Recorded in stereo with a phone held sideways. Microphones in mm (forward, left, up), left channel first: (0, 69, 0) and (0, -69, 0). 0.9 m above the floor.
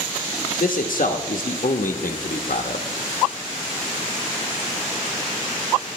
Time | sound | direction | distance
0.6 | a man speaking | 75° left (ahead or behind) | 0.9 m